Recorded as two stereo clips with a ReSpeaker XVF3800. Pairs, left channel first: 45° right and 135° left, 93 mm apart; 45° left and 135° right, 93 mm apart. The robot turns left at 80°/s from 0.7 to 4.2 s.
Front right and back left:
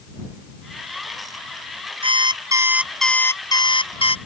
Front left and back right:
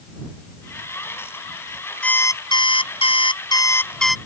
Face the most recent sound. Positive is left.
turn(degrees=-55)